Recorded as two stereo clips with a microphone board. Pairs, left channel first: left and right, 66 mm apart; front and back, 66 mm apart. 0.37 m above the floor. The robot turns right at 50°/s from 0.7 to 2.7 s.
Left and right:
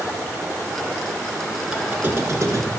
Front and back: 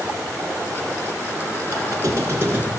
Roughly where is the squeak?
Behind.